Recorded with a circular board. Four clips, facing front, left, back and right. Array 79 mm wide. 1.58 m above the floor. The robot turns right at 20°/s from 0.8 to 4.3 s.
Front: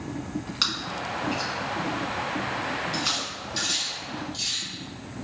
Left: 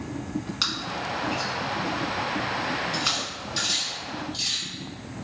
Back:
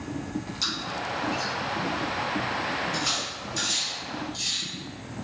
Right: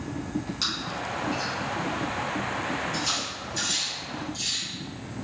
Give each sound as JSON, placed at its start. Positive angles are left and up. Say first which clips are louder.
{"t": 0.6, "sound": "chewing", "louder": "left 1 dB, even", "azimuth_deg": 25, "distance_m": 1.6}
{"t": 2.9, "sound": "cutlery clinking", "louder": "left 1 dB, even", "azimuth_deg": 35, "distance_m": 1.3}